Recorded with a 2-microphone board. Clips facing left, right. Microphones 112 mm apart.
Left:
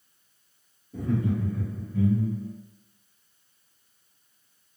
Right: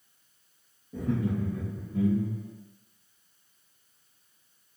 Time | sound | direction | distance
0.9 | laughter | 70° right (ahead or behind) | 1.5 m